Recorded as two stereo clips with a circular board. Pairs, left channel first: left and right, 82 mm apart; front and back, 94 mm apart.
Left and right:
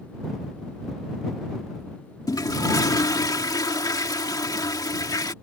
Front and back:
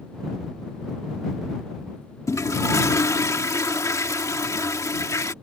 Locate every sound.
2.3 s a toilet flushing: 55° left